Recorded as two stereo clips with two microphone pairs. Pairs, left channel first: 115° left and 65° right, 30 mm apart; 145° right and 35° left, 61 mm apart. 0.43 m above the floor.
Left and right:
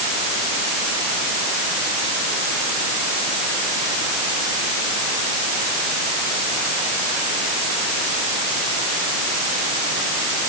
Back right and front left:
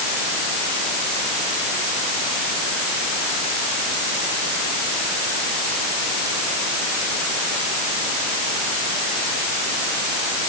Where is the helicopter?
I don't hear a helicopter.